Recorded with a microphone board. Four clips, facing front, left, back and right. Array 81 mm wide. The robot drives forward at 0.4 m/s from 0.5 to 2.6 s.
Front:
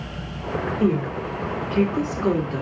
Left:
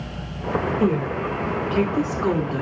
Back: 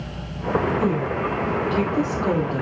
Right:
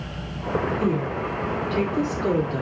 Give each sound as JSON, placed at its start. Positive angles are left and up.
{"t": 0.8, "sound": "a woman speaking", "azimuth_deg": 50, "distance_m": 1.4}